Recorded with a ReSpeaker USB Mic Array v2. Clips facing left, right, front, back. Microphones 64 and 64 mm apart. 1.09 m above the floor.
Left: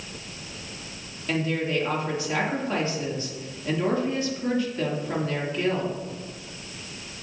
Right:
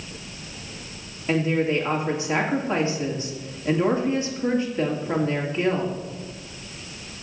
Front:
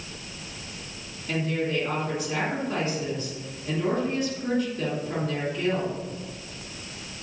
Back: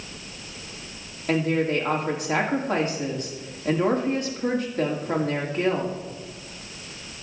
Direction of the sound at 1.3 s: 155° right.